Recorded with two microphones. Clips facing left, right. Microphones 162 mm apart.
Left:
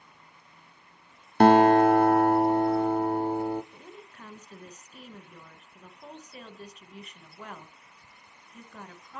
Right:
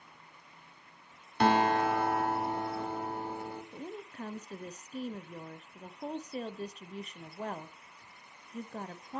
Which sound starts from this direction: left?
A guitar, at 1.4 s.